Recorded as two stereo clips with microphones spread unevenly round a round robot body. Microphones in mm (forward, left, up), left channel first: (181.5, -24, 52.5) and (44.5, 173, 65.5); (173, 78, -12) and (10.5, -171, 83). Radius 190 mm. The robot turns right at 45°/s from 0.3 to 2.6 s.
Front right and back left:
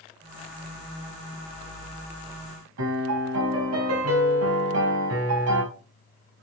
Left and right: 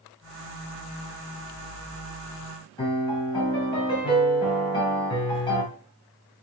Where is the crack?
No crack in this recording.